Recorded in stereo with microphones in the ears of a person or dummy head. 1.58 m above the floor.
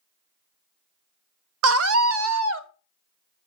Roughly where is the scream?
Right.